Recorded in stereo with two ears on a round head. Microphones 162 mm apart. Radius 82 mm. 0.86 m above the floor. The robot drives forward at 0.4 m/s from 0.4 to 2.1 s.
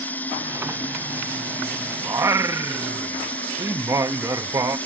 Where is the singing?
15° right (ahead or behind).